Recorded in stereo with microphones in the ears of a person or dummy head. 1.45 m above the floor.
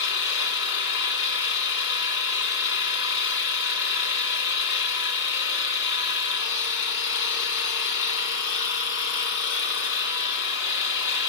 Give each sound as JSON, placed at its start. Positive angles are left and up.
{"t": 0.0, "sound": "an engine running", "side_deg": 65, "distance_m": 3.0}